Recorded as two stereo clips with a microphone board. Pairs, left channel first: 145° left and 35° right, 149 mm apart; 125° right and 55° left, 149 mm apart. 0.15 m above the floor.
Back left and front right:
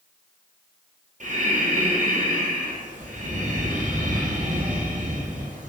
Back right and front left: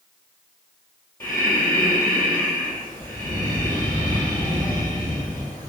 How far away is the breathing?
About 1.1 m.